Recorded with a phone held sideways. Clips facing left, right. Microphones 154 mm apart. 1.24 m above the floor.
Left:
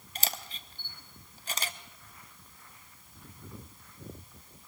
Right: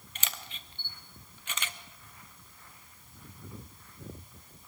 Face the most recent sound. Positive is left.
turn(degrees=35)  # may be behind; listen again after turning